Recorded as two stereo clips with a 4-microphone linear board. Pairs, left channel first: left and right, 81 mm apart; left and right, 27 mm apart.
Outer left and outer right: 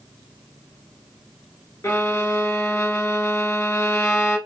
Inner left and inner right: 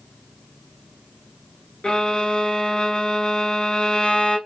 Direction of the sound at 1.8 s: 40° left (ahead or behind).